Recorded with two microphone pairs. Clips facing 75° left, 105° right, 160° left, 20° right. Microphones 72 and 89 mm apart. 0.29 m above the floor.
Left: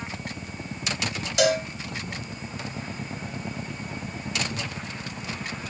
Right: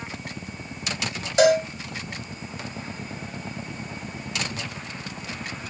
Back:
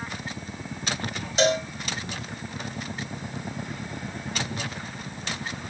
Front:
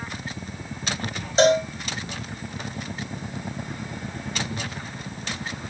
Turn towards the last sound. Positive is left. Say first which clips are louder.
# right 5 dB, front 5 dB
turn(degrees=-60)